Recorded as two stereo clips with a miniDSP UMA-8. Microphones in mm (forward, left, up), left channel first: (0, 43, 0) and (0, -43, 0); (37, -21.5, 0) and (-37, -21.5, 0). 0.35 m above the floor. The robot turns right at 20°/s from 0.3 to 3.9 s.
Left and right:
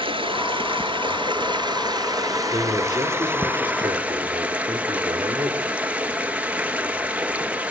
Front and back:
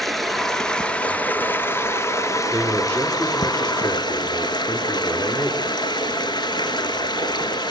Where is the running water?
90° right, 1.8 m; by 7.7 s 15° right, 1.8 m.